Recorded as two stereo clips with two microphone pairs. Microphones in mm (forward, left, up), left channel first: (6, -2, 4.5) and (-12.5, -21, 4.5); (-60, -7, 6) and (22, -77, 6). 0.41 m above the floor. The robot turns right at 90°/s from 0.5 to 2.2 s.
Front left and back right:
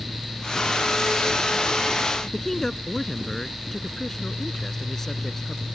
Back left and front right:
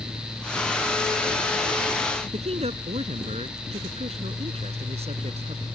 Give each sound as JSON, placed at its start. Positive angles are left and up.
{"t": 2.3, "sound": "a man speaking", "azimuth_deg": -30}